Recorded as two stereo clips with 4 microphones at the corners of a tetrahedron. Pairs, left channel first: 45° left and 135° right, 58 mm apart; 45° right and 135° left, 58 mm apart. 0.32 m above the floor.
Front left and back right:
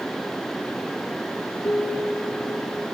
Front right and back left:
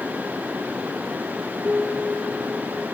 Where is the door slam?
No door slam in this recording.